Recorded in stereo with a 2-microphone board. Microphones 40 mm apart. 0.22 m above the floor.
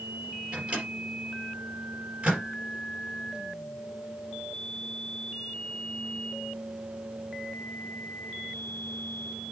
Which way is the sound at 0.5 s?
25° right (ahead or behind).